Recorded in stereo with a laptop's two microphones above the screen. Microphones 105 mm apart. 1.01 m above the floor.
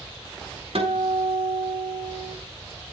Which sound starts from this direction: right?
A guitar, at 0.8 s.